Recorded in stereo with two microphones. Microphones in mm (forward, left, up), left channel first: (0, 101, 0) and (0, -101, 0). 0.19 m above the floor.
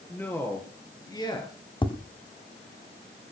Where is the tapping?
25° left (ahead or behind), 1.5 m.